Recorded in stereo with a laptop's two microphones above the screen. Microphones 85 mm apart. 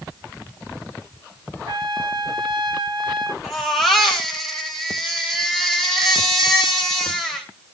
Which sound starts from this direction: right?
A trumpet, at 1.7 s.